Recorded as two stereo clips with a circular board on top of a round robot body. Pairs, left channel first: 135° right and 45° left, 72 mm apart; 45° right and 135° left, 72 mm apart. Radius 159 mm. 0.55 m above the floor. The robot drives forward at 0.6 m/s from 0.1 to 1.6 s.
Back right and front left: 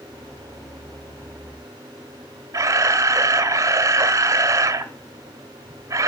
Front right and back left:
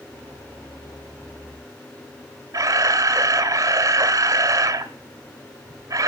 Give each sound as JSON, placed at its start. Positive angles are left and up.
{"t": 2.5, "sound": "a camera shutter", "azimuth_deg": 95, "distance_m": 0.9}